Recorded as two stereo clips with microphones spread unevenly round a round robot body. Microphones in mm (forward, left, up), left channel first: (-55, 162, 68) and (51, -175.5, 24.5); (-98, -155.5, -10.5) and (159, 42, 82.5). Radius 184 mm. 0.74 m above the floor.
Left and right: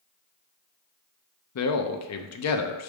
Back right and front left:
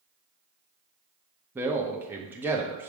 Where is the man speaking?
135° left, 0.8 m.